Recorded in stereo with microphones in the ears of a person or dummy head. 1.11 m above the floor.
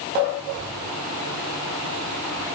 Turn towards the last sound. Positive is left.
No sound to turn to.